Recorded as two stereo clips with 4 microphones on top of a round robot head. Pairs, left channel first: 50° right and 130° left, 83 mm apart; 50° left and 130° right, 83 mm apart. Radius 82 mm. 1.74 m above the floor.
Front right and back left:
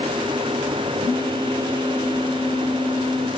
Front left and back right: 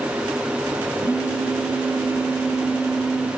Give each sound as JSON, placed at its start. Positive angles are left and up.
{"t": 1.0, "sound": "a phone buzzing", "azimuth_deg": 0, "distance_m": 1.4}